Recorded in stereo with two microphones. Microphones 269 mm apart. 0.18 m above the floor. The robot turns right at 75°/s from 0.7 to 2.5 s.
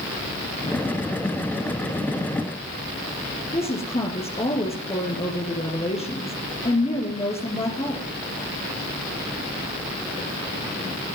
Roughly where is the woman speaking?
Left.